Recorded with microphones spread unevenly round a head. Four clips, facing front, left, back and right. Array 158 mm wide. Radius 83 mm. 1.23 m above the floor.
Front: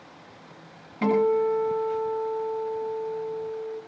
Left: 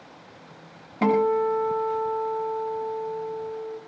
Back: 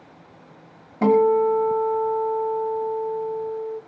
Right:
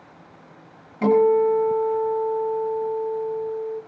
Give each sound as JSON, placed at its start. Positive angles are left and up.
{"t": 1.0, "sound": "a guitar", "azimuth_deg": 150, "distance_m": 6.0}